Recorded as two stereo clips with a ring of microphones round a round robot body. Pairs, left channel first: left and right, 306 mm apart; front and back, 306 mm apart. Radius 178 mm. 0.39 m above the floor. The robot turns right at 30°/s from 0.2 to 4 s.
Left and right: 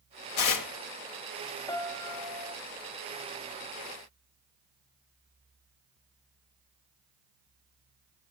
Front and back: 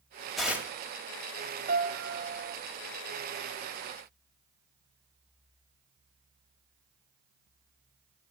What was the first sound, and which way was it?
Tearing paper, 90° left.